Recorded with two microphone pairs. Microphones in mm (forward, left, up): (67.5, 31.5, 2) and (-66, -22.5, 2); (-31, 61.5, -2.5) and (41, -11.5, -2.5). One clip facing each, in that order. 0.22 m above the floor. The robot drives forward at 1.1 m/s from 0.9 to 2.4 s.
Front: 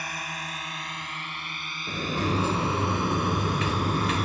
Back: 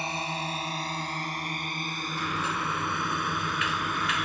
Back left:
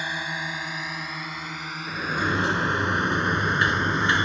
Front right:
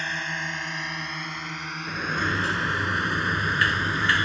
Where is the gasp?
No gasp in this recording.